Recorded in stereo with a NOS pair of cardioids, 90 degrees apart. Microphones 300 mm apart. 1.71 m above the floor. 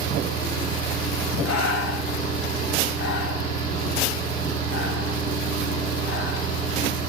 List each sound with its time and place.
0.0 s a fan: 65° right, 1.1 m
1.4 s breathing: 45° left, 0.5 m